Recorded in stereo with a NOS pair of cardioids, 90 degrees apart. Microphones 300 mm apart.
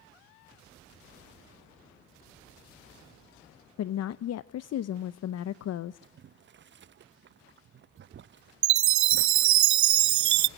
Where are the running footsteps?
No running footsteps in this recording.